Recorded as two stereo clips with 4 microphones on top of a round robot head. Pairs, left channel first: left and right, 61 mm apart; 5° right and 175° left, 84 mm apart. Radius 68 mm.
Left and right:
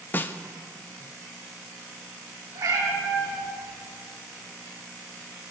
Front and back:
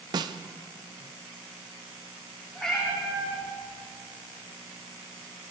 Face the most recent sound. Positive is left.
turn(degrees=-90)